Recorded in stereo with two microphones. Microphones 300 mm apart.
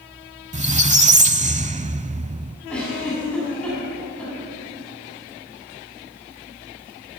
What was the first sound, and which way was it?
A squeak, 25° right (ahead or behind).